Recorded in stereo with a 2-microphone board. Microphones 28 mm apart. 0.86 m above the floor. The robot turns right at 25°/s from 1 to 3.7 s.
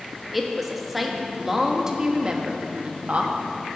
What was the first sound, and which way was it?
A woman speaking, 175° right.